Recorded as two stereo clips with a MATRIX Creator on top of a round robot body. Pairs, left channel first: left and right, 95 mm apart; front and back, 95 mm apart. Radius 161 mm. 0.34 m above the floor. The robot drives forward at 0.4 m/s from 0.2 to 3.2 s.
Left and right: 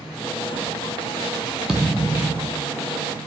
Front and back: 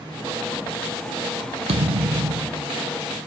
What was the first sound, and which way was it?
A thud, 175° right.